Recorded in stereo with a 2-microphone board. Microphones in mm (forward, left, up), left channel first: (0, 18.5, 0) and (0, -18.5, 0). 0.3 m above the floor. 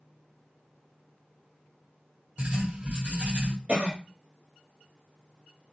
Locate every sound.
2.4 s writing: 40° right (ahead or behind), 1.9 m
3.7 s a cough: 35° right (ahead or behind), 1.2 m